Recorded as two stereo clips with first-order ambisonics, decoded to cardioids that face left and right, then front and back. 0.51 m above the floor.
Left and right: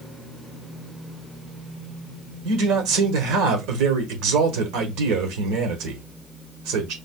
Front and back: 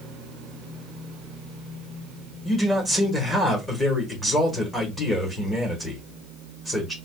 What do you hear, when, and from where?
2.5 s a man speaking: 80° right, 1.3 m